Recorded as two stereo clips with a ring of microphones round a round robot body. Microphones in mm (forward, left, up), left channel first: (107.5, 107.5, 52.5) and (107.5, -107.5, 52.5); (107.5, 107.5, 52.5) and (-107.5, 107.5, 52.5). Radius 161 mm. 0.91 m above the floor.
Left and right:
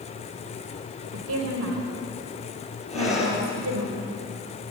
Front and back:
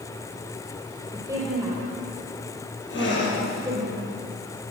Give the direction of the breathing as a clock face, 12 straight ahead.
11 o'clock.